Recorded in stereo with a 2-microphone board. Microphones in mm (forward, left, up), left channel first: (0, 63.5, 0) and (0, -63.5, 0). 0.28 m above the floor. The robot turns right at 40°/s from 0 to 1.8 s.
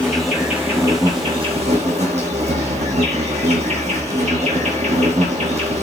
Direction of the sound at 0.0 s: 170° left.